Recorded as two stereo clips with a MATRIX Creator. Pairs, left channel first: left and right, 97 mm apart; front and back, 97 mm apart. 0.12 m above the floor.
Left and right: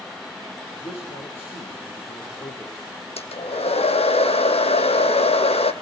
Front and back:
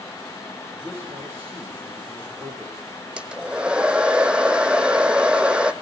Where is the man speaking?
110° left, 9 m; by 2.8 s 115° left, 8 m.